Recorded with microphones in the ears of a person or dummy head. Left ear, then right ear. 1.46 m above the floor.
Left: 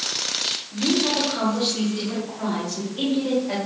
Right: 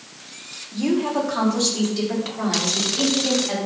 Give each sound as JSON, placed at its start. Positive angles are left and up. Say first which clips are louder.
{"t": 0.7, "sound": "a woman speaking", "louder": "right 2 dB", "side_deg": -60, "distance_m": 3.0}